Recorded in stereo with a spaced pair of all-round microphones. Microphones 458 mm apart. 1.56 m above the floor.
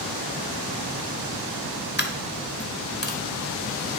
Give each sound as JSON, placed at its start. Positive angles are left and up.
{"t": 2.0, "sound": "a dropped coin", "side_deg": 25, "distance_m": 1.1}